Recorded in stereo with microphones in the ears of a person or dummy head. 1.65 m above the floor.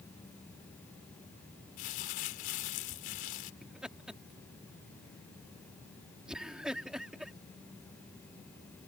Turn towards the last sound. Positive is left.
turn(degrees=-10)  # may be behind; listen again after turning